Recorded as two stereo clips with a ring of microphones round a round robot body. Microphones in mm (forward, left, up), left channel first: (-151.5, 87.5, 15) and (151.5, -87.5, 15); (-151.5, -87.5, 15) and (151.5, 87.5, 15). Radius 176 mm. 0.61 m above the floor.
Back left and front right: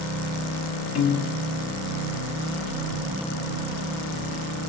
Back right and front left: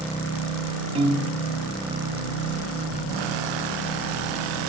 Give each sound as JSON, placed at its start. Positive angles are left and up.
{"t": 0.9, "sound": "a piano", "azimuth_deg": 105, "distance_m": 1.5}